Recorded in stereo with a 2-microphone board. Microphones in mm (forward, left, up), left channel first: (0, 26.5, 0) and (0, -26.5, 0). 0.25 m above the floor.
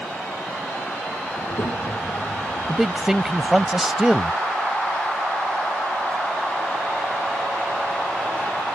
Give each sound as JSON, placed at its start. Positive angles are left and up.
{"t": 1.4, "sound": "a child speaking", "side_deg": 65}
{"t": 2.7, "sound": "a man speaking", "side_deg": -5}